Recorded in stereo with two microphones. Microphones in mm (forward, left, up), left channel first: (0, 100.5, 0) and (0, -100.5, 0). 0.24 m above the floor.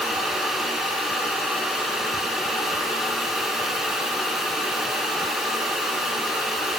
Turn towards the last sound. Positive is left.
No sound to turn to.